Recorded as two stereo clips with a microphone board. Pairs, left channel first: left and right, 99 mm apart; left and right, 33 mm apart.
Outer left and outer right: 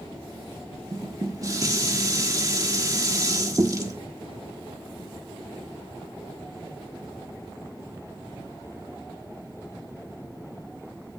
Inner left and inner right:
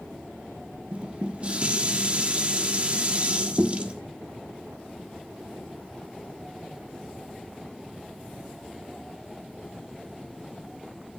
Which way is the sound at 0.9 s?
35° right (ahead or behind).